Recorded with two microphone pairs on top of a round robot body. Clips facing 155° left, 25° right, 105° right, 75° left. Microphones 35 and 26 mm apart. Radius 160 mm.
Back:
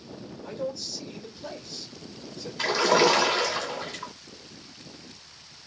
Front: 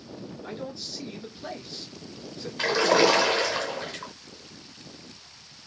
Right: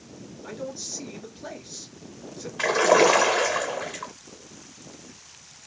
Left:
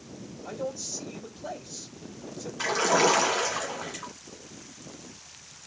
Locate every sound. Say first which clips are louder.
0.4 s a man speaking: back 5 dB, left 1 dB; 65° right, 2 m
2.6 s a splash: even, right 5 dB; 100° right, 0.5 m